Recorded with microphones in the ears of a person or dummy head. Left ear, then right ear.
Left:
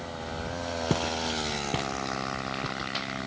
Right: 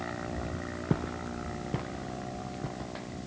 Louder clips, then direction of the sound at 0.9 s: Left 6 dB; 75° left (ahead or behind).